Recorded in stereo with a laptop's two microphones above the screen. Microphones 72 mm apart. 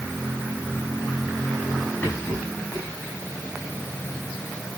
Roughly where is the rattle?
Centre.